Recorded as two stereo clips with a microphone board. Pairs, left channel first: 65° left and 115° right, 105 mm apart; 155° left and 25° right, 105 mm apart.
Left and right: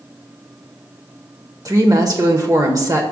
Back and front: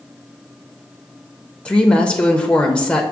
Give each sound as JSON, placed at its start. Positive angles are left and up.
{"t": 1.6, "sound": "a woman speaking", "azimuth_deg": -130, "distance_m": 0.9}